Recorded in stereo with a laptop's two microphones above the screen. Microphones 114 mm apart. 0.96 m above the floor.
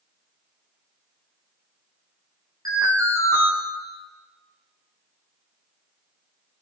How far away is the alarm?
About 3.5 m.